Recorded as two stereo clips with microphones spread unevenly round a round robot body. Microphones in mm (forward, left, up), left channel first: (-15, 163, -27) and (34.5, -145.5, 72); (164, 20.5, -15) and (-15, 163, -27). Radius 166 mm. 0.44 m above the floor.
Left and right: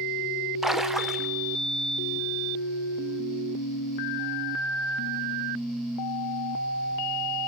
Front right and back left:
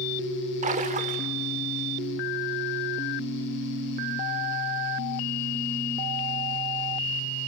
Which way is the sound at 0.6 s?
165° left.